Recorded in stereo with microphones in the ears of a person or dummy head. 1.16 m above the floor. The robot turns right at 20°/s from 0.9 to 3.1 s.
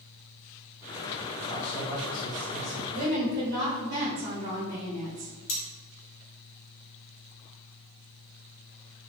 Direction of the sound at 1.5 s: 40° left (ahead or behind).